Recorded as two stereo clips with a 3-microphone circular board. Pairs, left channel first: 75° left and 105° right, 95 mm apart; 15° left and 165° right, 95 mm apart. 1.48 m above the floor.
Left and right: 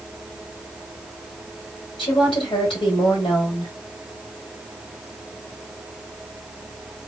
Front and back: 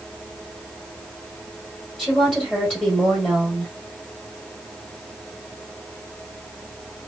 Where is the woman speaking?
100° left, 1.8 m.